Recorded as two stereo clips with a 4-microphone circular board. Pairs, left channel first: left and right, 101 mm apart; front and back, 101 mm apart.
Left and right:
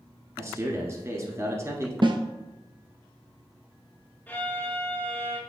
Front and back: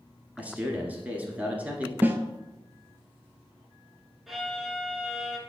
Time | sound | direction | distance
0.4 | a man speaking | 120° right | 1.3 m
2.0 | a snare drum | 115° right | 0.7 m
4.3 | a violin | 100° left | 1.2 m